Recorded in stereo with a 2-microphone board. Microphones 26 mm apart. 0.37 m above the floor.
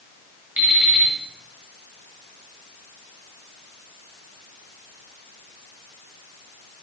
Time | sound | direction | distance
0.6 | an alarm clock | 60° right (ahead or behind) | 1.3 m